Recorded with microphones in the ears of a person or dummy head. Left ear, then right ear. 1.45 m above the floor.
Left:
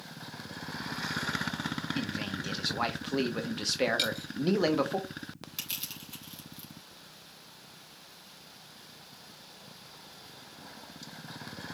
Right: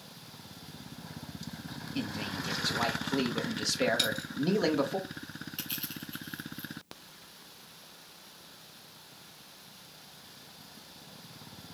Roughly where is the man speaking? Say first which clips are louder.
Left 1 dB; centre.